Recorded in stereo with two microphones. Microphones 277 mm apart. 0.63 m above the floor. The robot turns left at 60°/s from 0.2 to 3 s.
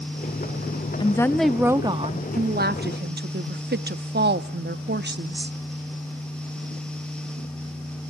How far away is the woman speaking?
About 0.6 m.